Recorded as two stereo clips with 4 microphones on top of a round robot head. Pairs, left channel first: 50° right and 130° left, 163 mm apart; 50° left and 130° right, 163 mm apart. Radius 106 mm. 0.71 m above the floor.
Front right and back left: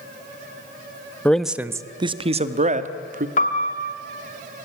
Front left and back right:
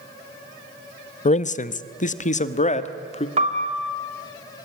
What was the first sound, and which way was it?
A man speaking, 30° left.